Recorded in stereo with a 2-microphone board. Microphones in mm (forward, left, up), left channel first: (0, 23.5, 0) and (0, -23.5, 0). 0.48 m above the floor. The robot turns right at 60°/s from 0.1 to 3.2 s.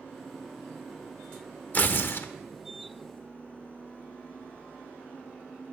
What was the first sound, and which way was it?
Tearing paper, 45° left.